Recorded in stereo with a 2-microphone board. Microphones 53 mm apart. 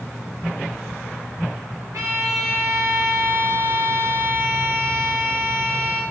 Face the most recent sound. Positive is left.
turn(degrees=-80)